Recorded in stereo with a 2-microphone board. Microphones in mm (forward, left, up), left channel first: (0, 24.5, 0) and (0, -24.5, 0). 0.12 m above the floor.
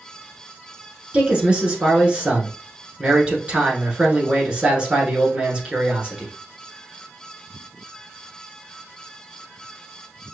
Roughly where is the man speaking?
Right.